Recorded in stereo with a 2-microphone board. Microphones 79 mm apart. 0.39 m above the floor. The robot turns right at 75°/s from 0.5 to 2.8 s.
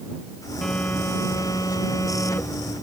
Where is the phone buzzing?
10° left; by 2.7 s 170° left.